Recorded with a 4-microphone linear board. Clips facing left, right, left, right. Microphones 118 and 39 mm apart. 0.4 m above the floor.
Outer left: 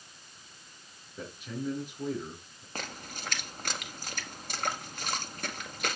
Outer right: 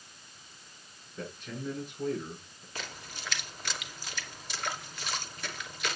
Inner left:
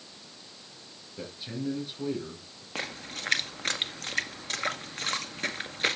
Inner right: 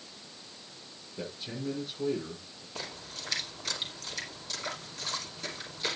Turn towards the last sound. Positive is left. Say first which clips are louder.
# outer left 3 dB, inner left 6 dB
turn(degrees=50)  # may be behind; listen again after turning